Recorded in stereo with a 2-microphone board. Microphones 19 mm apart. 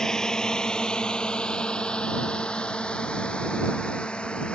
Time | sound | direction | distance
0.0 | a drone | 35° left (ahead or behind) | ?